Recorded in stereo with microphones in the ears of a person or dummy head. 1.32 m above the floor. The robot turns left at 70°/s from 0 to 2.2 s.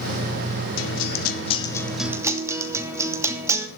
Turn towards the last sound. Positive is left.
turn(degrees=-15)